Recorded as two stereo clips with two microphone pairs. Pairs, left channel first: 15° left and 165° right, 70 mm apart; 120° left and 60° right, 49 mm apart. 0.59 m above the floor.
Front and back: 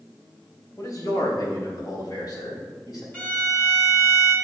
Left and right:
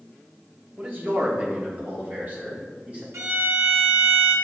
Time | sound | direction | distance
0.8 | a man speaking | 10° right | 2.5 m
3.1 | a violin | 50° right | 3 m